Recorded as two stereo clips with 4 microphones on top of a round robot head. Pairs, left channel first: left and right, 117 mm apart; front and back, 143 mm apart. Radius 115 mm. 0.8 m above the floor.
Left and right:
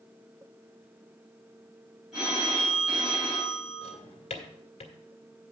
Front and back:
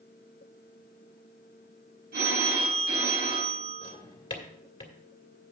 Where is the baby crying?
No baby crying in this recording.